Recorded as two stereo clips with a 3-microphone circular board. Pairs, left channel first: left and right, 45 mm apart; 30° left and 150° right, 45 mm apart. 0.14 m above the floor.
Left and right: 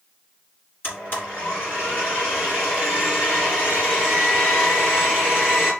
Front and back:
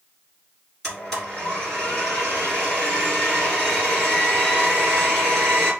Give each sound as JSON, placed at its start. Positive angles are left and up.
{"t": 0.8, "sound": "a blender", "azimuth_deg": 115, "distance_m": 2.5}